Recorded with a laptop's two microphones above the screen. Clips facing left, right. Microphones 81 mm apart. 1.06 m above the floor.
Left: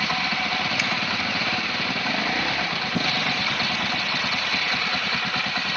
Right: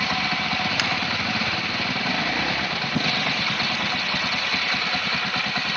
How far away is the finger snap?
About 4.5 m.